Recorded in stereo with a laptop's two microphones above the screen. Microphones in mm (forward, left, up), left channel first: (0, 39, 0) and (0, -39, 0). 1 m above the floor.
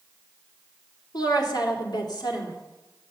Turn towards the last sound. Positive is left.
turn(degrees=65)  # may be behind; listen again after turning